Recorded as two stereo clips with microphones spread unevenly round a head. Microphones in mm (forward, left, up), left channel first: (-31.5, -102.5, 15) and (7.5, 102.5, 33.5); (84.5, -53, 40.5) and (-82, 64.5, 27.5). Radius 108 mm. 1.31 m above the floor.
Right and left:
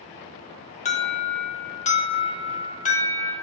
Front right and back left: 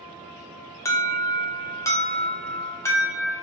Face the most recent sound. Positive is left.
turn(degrees=-110)